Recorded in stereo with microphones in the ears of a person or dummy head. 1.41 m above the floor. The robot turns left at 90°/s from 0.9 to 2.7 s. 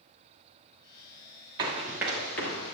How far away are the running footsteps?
About 1.4 m.